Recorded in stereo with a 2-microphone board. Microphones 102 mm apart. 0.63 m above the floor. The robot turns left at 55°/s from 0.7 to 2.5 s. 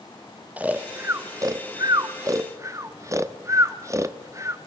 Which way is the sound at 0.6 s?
15° right (ahead or behind).